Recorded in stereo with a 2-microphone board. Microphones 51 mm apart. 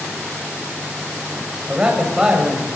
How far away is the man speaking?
About 6.5 m.